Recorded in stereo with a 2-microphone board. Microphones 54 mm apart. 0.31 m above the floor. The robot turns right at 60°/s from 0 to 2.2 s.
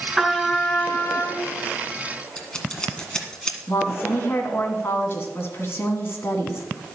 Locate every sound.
0.2 s a trumpet: 10° right, 1.5 m; by 1.5 s 70° left, 1.5 m
2.4 s scissors: 15° left (ahead or behind), 1.6 m
3.7 s a woman speaking: 50° left (ahead or behind), 2.5 m